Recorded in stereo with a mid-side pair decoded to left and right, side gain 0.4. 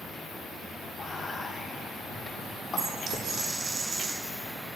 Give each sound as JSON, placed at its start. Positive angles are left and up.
{"t": 1.0, "sound": "whispering", "azimuth_deg": 45, "distance_m": 3.0}
{"t": 2.8, "sound": "a dropped coin", "azimuth_deg": -65, "distance_m": 3.5}